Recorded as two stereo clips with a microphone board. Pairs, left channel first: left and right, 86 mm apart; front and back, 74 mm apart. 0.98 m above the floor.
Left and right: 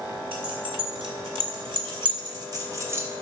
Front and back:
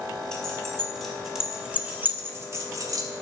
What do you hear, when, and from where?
0.3 s keys jangling: 80° right, 3.5 m; by 3.1 s 150° right, 2 m